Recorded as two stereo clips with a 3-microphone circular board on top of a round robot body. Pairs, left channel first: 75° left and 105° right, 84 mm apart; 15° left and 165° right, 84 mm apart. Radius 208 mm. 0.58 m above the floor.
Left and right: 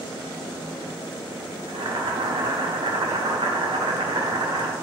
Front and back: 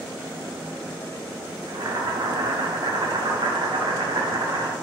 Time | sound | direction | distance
1.7 | boiling | 130° right | 0.7 m